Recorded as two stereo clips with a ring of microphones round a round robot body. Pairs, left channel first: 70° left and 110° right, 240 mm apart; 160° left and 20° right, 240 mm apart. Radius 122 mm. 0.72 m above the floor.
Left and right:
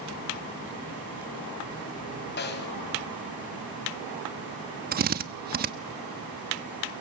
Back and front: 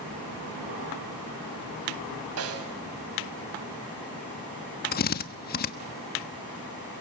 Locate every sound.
2.4 s a snare drum: 15° left, 2.5 m
4.9 s a drill: 160° right, 1.3 m